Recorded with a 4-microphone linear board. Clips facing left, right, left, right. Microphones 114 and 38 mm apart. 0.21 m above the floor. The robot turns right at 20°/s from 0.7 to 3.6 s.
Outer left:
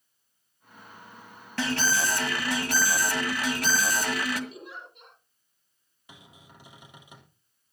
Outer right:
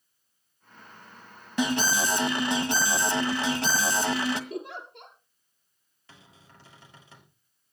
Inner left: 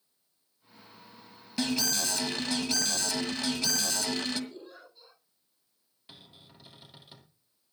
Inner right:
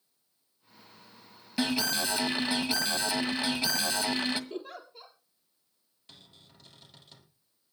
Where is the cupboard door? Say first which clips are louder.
Outer left 2 dB, inner left 2 dB; 15° left (ahead or behind), 3 m.